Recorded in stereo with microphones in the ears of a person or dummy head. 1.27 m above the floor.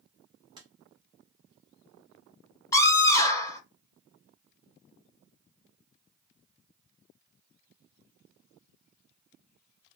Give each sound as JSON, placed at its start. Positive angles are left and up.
{"t": 0.6, "sound": "tapping", "side_deg": -20, "distance_m": 0.7}
{"t": 2.7, "sound": "a scream", "side_deg": 15, "distance_m": 0.8}